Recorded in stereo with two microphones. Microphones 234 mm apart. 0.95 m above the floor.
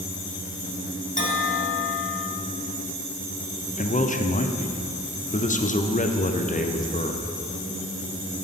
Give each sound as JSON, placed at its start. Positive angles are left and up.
{"t": 1.2, "sound": "a bell", "side_deg": 35, "distance_m": 0.9}
{"t": 3.8, "sound": "a man speaking", "side_deg": 35, "distance_m": 0.5}